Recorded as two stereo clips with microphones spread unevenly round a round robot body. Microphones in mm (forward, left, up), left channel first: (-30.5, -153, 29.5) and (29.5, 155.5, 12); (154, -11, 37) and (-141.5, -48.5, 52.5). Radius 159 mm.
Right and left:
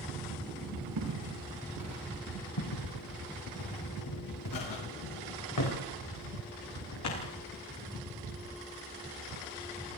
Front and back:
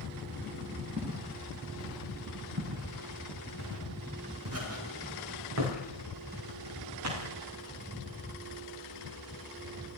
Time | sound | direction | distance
1.0 | footsteps | 120° left | 7 m
2.6 | footsteps | 120° right | 6 m